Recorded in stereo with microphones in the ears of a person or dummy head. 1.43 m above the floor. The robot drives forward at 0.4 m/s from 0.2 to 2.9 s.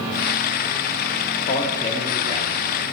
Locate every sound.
1.5 s a man speaking: 35° left (ahead or behind), 3 m; by 2.6 s 30° left (ahead or behind), 3.5 m